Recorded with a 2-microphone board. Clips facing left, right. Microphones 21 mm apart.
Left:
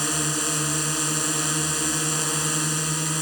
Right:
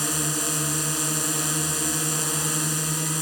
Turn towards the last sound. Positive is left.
turn(degrees=10)  # may be behind; listen again after turning